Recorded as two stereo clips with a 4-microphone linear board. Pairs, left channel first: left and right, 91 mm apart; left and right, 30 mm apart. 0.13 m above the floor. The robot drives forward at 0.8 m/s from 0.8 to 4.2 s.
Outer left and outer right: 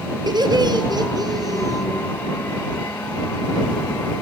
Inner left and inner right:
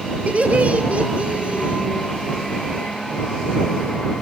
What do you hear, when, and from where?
0.3 s laughter: 50° right (ahead or behind), 2.5 m; by 1.9 s 40° right (ahead or behind), 3 m